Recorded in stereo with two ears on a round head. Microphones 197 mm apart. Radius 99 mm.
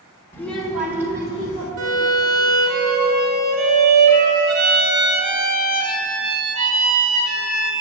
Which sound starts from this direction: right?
A violin, at 1.8 s.